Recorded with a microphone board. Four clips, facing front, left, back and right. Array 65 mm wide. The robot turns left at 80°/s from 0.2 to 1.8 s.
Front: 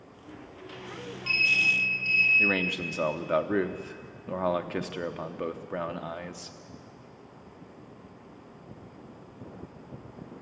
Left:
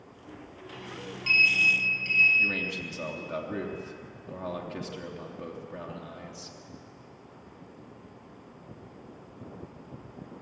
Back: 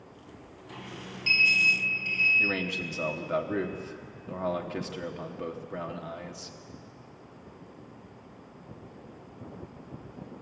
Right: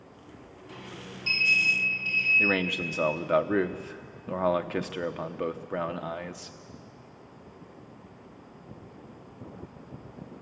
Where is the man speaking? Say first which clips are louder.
Right 4 dB, front 2 dB; 60° right, 1.0 m.